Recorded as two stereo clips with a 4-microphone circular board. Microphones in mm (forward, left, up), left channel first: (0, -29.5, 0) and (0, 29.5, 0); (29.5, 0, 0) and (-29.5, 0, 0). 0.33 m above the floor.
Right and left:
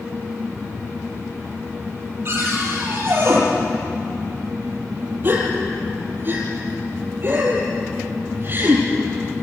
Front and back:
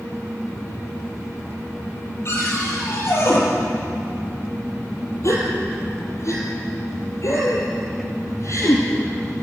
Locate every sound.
2.2 s a cupboard door: 45° left, 7 m
5.2 s a gasp: 40° left, 5.5 m